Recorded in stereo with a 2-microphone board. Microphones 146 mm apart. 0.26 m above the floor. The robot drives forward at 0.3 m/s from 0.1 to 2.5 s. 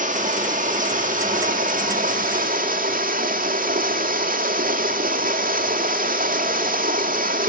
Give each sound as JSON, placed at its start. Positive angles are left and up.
{"t": 0.0, "sound": "running water", "side_deg": -60, "distance_m": 3.0}